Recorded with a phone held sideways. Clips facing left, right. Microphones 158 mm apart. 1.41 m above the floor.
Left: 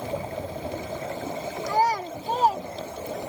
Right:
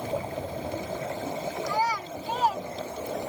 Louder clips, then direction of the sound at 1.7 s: Left 7 dB; 55° left (ahead or behind).